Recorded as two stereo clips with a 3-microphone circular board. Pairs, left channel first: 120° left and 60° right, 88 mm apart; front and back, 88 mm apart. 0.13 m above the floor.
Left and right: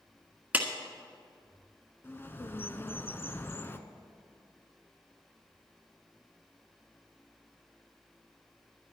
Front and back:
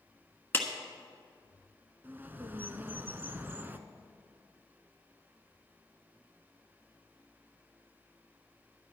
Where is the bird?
145° left, 0.6 m.